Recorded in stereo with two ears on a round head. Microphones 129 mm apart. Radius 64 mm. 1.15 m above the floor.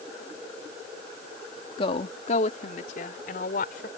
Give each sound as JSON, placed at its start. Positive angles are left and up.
{"t": 1.8, "sound": "a woman speaking", "side_deg": 40}